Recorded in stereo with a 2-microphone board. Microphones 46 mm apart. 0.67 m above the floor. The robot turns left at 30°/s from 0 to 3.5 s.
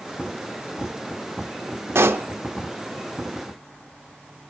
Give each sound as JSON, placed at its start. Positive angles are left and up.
{"t": 1.9, "sound": "a pop", "side_deg": -70, "distance_m": 0.7}